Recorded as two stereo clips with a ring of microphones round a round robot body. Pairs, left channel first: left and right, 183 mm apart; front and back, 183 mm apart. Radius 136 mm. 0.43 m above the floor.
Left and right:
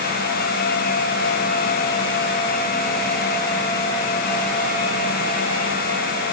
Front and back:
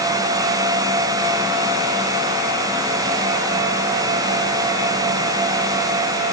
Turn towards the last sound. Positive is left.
No sound to turn to.